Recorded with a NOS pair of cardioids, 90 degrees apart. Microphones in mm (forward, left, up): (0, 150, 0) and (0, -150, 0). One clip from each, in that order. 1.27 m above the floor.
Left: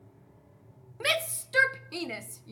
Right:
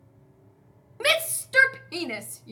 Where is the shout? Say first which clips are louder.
Right 5 dB; 25° right, 0.7 m.